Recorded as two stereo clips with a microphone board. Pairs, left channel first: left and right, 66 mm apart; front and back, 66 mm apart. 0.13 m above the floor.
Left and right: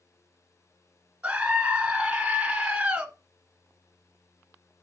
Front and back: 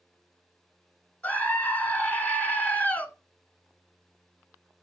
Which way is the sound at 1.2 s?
35° right.